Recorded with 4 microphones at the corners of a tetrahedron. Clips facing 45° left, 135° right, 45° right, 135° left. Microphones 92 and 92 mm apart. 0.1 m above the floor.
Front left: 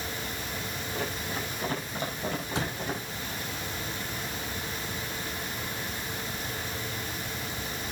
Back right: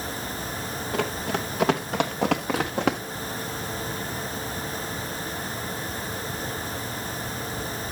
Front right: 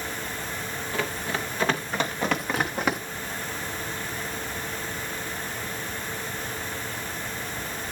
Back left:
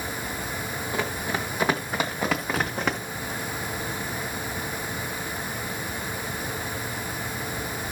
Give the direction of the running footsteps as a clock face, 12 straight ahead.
5 o'clock.